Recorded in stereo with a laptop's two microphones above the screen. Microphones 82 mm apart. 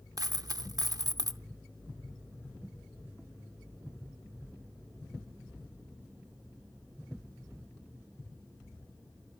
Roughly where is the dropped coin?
Right.